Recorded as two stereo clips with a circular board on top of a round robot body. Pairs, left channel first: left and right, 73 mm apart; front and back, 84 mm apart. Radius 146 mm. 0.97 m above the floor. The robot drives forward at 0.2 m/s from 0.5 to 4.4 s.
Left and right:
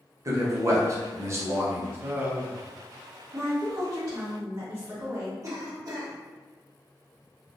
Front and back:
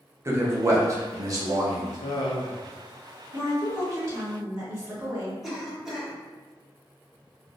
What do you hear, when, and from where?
0.2 s a man speaking: 130° right, 0.8 m; by 2.0 s 145° right, 0.9 m
2.0 s laughter: 25° right, 0.6 m; by 2.7 s 35° right, 0.5 m
3.3 s a woman speaking: 125° right, 1.3 m; by 5.3 s 135° right, 1.4 m
5.4 s a cough: 95° right, 1.1 m